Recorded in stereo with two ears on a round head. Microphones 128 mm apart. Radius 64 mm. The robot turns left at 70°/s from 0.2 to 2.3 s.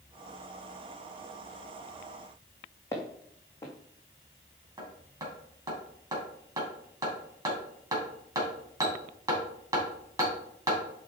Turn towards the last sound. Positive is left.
turn(degrees=-25)  # may be behind; listen again after turning